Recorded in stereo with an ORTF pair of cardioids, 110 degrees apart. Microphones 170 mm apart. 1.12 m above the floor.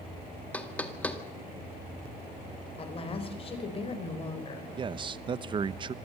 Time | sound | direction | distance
0.5 | knocking | 10° left | 1.8 m
2.8 | a woman speaking | 35° left | 4.5 m
4.8 | a man speaking | 30° right | 0.8 m